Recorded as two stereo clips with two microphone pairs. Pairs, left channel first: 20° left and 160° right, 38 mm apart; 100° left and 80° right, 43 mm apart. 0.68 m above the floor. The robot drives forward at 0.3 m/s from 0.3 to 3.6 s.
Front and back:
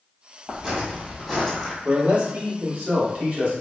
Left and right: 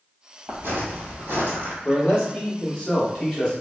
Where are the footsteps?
75° right, 1.1 m; by 1.8 s 65° right, 1.4 m.